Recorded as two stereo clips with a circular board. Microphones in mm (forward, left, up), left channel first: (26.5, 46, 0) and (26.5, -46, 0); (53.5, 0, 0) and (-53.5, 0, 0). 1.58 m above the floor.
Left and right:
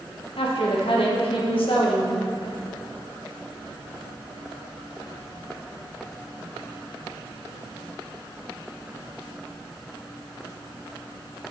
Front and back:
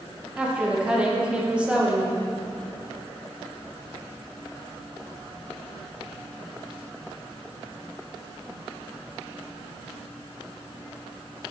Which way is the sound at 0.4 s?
100° left.